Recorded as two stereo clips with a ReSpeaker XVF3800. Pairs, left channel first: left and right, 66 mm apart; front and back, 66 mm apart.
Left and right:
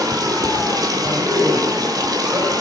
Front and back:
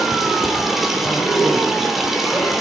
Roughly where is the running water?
Right.